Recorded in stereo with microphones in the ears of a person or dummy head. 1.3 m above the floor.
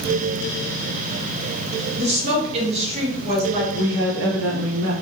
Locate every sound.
2.0 s a woman speaking: 40° right (ahead or behind), 1.0 m
3.7 s a woman speaking: 70° right (ahead or behind), 1.0 m